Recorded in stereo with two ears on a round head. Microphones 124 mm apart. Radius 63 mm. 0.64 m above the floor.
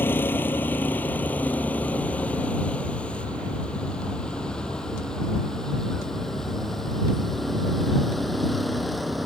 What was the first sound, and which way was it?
A vehicle, 15° left (ahead or behind).